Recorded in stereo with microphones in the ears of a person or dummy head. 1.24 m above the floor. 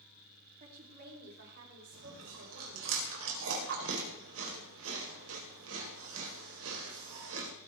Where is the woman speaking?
50° right (ahead or behind), 3 m; by 2.9 s 70° right (ahead or behind), 5 m.